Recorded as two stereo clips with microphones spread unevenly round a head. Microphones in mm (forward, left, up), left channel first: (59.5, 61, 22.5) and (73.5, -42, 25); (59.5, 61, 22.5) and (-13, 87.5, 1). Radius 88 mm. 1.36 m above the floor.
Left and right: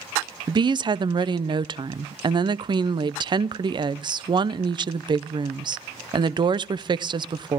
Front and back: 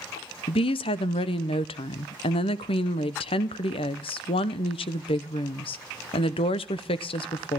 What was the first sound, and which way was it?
A woman speaking, 35° right.